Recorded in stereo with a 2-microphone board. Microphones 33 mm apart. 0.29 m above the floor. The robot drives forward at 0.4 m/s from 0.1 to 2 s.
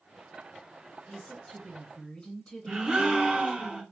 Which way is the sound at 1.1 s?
40° left (ahead or behind).